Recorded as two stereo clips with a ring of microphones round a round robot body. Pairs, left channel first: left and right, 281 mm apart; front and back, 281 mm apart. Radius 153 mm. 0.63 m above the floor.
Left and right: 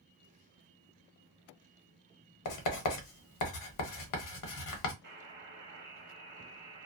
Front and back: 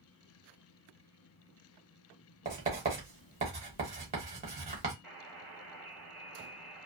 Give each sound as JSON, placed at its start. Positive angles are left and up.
{"t": 2.5, "sound": "writing", "azimuth_deg": 110, "distance_m": 0.9}
{"t": 5.0, "sound": "a buzzer", "azimuth_deg": -100, "distance_m": 1.3}